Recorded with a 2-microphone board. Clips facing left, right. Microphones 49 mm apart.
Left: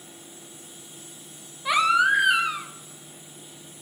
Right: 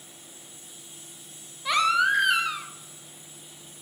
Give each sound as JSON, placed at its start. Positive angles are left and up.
{"t": 1.6, "sound": "a baby crying", "side_deg": 10, "distance_m": 0.8}